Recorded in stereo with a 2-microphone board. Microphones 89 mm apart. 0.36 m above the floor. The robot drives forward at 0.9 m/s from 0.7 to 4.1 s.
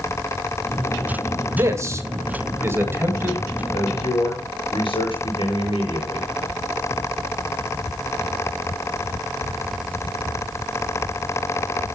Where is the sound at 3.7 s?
70° left (ahead or behind), 6 m; by 6.3 s 75° left (ahead or behind), 6 m.